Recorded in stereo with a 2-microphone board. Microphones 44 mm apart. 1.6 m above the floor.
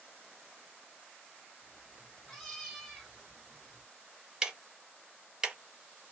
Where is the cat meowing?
10° left (ahead or behind), 1.2 m; by 3.8 s centre (ahead or behind), 1.4 m.